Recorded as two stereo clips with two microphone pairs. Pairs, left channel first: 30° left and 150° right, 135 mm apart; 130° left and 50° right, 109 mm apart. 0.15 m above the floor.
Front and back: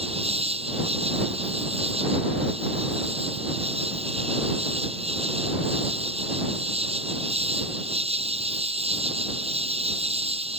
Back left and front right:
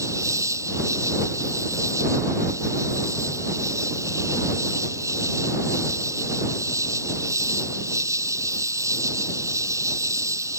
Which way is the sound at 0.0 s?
110° right.